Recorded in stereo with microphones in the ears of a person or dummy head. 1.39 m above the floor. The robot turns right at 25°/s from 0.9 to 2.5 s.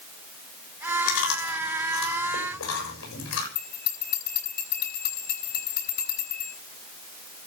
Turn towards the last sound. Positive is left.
turn(degrees=55)  # may be behind; listen again after turning